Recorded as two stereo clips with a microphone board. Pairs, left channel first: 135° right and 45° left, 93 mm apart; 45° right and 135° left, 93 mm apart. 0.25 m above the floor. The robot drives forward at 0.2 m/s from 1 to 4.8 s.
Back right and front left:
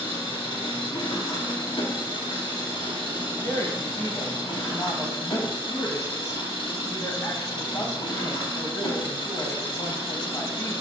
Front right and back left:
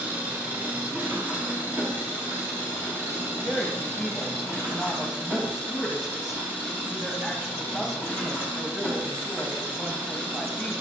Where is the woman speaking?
135° right, 1.3 m; by 10.7 s 150° right, 1.4 m.